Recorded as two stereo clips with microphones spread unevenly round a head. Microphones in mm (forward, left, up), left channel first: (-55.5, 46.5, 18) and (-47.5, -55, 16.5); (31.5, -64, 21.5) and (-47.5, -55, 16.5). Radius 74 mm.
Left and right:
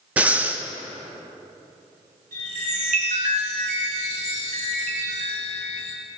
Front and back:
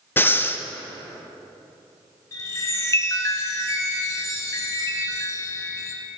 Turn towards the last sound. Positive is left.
turn(degrees=-55)